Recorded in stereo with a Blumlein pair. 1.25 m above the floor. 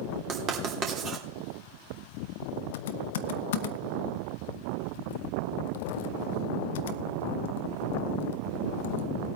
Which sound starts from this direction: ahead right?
Writing, at 0.3 s.